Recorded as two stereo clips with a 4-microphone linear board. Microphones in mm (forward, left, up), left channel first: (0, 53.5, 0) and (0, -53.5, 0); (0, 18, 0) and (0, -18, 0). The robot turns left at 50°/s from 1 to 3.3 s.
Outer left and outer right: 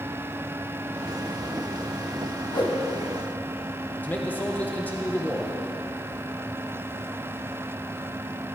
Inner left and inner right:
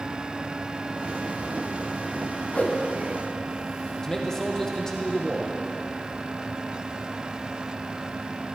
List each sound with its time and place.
2.5 s a whoosh: 45° left (ahead or behind), 1.1 m; by 2.8 s 40° left (ahead or behind), 1.1 m
4.0 s a man speaking: 15° left (ahead or behind), 1.0 m